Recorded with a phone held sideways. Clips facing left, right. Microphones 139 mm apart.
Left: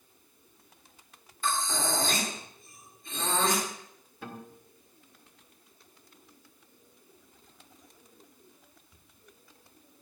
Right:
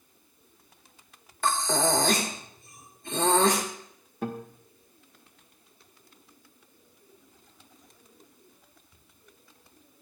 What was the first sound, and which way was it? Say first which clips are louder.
Breathing: right 6 dB; 70° right (ahead or behind).